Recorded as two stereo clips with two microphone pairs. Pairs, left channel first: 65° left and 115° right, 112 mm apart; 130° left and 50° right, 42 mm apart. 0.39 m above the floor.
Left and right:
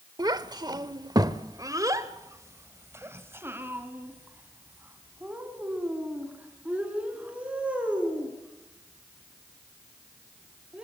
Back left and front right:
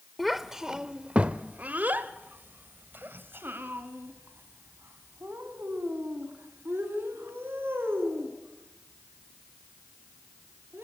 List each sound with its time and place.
0.2 s a child speaking: 135° right, 1.0 m; by 10.8 s 35° right, 5.5 m